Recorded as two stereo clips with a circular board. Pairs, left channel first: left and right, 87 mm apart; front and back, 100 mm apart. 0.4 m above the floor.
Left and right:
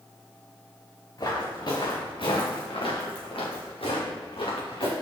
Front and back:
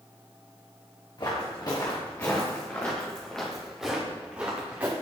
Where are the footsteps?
45° left, 2.5 m; by 4.9 s 110° left, 3 m.